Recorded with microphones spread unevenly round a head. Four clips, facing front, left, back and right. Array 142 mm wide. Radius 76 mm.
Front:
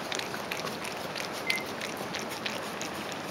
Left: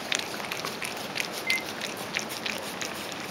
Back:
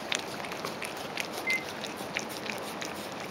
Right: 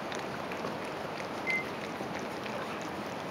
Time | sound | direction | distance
1.4 | a microwave | 175° right | 0.8 m